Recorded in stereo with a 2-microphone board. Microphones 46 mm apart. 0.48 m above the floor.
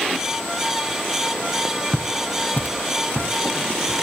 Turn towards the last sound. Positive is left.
turn(degrees=50)  # may be behind; listen again after turning